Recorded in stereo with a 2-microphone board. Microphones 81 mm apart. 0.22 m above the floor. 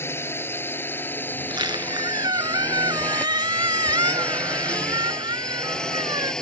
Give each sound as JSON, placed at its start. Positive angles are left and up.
{"t": 0.0, "sound": "a drone", "side_deg": 30}
{"t": 1.4, "sound": "a squeak", "side_deg": -70}